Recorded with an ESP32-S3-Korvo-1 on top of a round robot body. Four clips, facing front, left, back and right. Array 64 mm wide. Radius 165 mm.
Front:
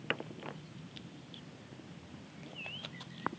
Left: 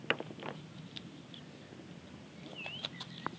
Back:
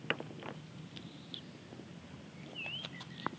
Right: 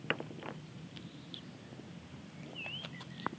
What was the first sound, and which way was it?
Only background noise.